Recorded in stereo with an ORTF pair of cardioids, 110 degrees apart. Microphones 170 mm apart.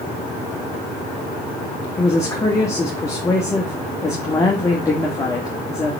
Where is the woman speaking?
15° left, 1.9 m.